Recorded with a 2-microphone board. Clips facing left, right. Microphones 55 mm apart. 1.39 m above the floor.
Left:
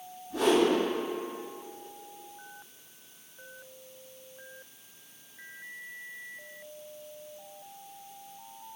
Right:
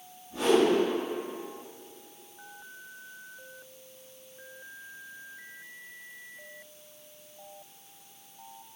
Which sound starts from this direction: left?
A whoosh, at 0.3 s.